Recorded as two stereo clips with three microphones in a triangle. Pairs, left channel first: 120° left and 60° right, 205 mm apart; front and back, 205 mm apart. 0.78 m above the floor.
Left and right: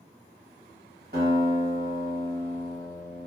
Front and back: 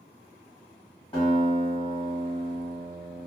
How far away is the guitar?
About 1.5 m.